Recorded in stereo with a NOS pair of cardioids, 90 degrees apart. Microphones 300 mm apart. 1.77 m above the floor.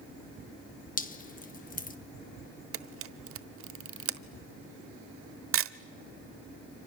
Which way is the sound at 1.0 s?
25° left.